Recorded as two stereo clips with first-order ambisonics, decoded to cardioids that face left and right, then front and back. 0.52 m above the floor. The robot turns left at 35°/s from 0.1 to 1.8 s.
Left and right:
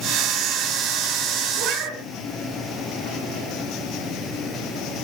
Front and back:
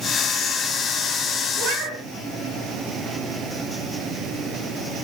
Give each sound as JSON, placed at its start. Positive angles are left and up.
{"t": 1.6, "sound": "a cat meowing", "azimuth_deg": -130, "distance_m": 2.5}